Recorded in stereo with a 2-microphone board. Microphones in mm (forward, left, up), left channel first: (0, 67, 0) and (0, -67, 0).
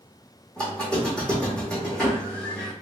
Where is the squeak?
5° left (ahead or behind), 1.5 m.